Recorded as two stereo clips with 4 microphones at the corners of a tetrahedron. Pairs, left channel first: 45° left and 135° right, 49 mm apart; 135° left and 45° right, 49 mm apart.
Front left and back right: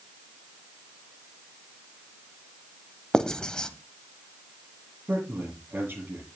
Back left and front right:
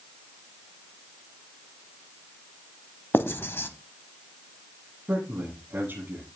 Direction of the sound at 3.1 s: 115° left.